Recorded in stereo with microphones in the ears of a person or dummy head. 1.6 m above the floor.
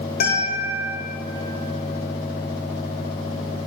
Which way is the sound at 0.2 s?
45° left (ahead or behind).